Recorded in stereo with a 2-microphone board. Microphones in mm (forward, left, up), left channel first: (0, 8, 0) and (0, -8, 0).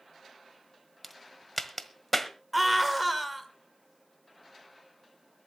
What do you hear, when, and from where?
1.0 s a crack: 10° left (ahead or behind), 1.4 m
2.5 s a scream: 5° right (ahead or behind), 1.7 m